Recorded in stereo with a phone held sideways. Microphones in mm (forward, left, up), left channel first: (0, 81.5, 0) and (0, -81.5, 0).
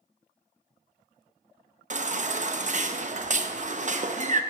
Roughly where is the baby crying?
Right.